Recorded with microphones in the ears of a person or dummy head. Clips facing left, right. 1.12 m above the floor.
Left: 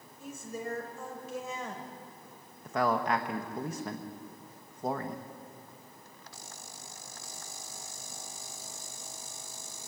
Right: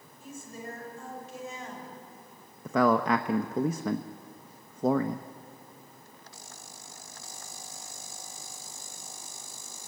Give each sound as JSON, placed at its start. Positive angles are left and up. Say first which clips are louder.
{"t": 0.2, "sound": "a woman speaking", "louder": "left 3 dB", "side_deg": 85, "distance_m": 5.5}
{"t": 2.6, "sound": "a man speaking", "louder": "right 5 dB", "side_deg": -75, "distance_m": 0.9}